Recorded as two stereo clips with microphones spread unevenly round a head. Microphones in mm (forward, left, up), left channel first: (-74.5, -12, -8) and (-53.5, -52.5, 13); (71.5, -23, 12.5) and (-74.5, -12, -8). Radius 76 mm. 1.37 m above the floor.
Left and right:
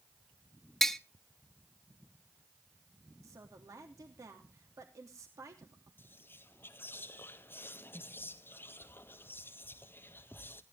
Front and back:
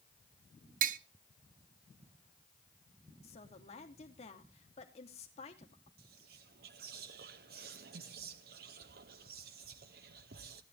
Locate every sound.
0.8 s tapping: 175° right, 0.7 m
3.2 s a woman speaking: 50° right, 3 m
6.0 s whispering: 150° left, 0.5 m